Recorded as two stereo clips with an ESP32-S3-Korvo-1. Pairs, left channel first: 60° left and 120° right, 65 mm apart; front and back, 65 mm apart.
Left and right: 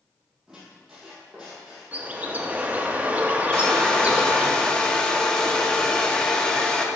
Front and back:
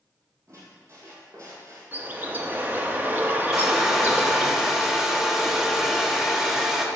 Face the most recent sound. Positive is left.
turn(degrees=110)